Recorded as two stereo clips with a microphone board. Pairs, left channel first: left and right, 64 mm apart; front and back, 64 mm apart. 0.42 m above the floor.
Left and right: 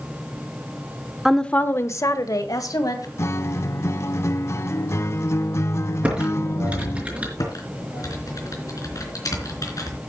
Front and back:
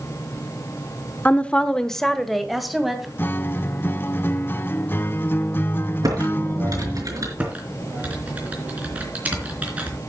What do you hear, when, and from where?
1.2 s a woman speaking: 15° right, 0.8 m; by 3.1 s 95° left, 2.5 m
3.2 s a guitar: 50° left, 0.5 m
6.0 s typing on a keyboard: 160° right, 4.5 m
7.4 s typing on a keyboard: 115° left, 3.5 m